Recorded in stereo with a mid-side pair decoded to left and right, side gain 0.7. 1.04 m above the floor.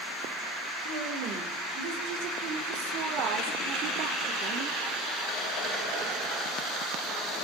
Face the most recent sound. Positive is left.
turn(degrees=-45)